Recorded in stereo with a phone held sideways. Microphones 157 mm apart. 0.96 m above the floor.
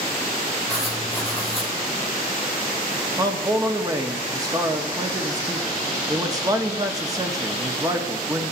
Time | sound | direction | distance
0.7 | writing | centre (ahead or behind) | 4.5 m
3.2 | a man speaking | 20° right (ahead or behind) | 1.6 m